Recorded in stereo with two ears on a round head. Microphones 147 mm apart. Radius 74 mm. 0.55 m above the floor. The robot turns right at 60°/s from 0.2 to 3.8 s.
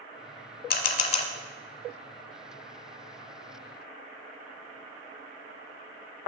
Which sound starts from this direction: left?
A camera shutter, at 0.7 s.